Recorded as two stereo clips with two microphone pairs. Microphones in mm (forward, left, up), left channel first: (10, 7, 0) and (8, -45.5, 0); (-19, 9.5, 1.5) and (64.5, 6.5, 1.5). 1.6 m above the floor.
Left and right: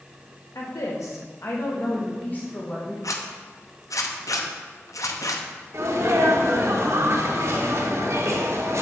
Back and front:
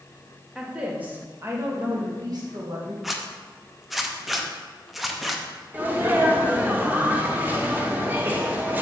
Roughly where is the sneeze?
Right.